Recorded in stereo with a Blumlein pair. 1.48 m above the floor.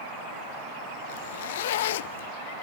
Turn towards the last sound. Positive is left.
turn(degrees=55)